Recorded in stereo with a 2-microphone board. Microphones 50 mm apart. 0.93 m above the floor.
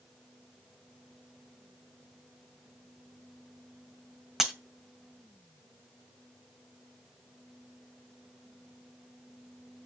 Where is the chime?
I don't hear a chime.